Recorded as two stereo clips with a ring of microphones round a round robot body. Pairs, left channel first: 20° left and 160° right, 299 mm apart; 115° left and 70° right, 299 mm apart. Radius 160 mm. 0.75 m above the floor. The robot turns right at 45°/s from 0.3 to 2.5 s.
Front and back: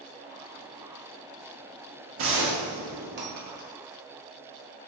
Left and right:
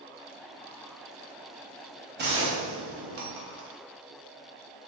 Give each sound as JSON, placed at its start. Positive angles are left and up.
{"t": 2.2, "sound": "a gunshot", "azimuth_deg": -120, "distance_m": 0.8}